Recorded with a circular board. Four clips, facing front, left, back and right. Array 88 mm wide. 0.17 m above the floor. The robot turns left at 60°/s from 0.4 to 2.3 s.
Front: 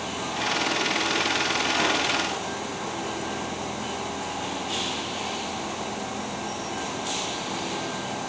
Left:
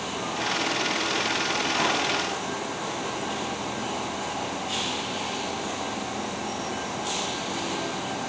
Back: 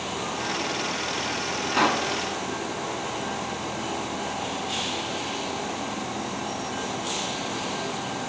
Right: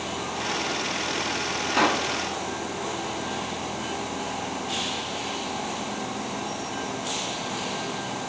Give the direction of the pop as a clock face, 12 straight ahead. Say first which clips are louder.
Right 5 dB, back 5 dB; 4 o'clock.